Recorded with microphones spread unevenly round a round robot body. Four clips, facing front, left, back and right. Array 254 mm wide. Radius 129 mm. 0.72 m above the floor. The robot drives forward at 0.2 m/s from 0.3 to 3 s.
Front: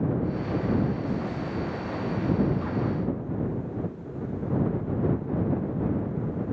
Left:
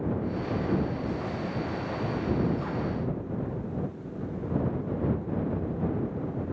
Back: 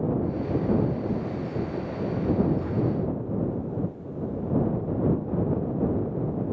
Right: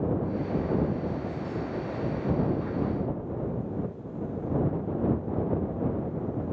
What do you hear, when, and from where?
Only background noise.